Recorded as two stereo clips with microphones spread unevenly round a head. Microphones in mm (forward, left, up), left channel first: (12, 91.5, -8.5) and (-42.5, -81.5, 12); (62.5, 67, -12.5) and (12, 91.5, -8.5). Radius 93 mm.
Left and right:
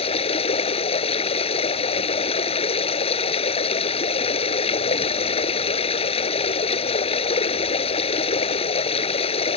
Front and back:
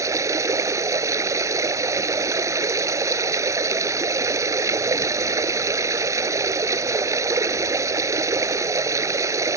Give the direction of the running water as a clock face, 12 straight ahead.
8 o'clock.